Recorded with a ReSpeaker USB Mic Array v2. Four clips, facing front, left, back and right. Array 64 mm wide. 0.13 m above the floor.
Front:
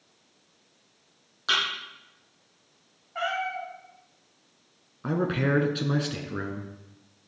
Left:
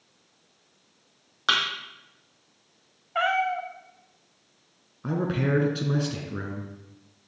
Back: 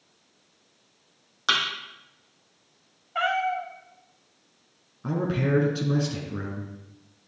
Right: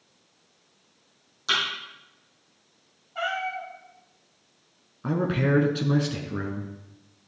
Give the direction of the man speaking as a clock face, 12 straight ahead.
1 o'clock.